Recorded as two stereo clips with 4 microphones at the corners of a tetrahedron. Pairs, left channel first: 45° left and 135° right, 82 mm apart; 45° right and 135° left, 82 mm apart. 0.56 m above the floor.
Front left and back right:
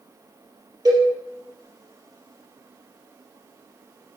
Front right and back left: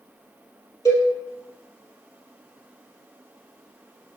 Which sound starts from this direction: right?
A cowbell, at 0.8 s.